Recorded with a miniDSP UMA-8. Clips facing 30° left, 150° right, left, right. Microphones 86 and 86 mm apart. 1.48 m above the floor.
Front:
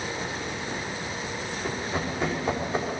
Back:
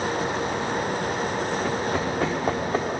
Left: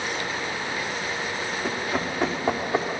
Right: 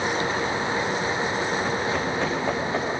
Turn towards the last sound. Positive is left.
turn(degrees=165)